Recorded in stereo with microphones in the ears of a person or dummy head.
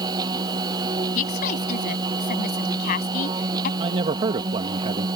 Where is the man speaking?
30° right (ahead or behind).